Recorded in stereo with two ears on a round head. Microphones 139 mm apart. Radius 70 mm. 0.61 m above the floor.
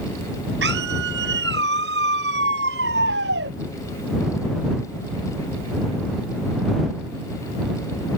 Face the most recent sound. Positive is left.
turn(degrees=-75)  # may be behind; listen again after turning